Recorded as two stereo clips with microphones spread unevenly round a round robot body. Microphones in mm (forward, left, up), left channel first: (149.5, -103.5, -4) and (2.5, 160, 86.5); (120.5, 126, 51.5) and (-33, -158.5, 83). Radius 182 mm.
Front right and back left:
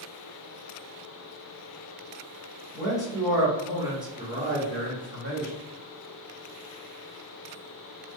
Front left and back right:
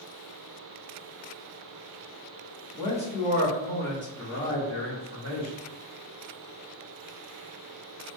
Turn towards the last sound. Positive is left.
turn(degrees=75)